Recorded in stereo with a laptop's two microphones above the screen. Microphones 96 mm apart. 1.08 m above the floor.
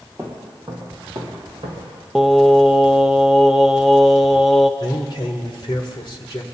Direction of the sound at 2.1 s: Centre (ahead or behind).